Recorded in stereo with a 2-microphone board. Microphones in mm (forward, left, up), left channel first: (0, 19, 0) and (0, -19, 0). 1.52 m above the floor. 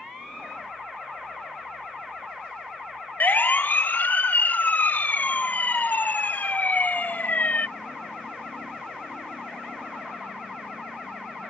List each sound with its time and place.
3.2 s a siren: 55° left (ahead or behind); by 7.7 s 45° left (ahead or behind)